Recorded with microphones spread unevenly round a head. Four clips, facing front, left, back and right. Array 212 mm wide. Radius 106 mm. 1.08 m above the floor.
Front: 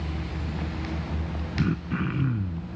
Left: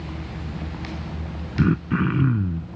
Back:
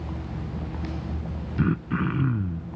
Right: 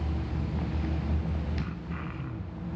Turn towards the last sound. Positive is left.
turn(degrees=95)